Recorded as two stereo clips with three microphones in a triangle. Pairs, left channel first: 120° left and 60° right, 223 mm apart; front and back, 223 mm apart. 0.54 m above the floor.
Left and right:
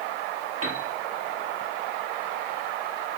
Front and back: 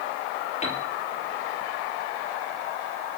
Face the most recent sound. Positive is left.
turn(degrees=-60)